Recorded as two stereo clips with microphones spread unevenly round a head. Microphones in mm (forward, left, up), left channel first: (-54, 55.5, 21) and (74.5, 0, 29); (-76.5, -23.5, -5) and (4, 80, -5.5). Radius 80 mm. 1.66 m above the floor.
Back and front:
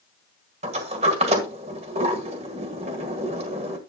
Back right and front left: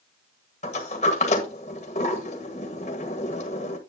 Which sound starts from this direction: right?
A sliding door, at 0.6 s.